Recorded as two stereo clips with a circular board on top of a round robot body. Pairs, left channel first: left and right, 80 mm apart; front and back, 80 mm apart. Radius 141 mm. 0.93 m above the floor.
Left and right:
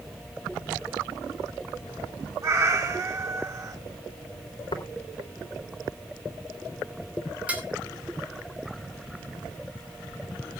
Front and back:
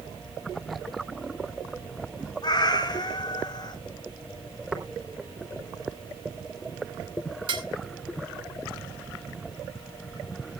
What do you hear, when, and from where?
2.4 s a cat meowing: 40° right, 2 m
4.7 s tapping: 100° left, 3.5 m
7.5 s dishes clattering: 165° right, 3 m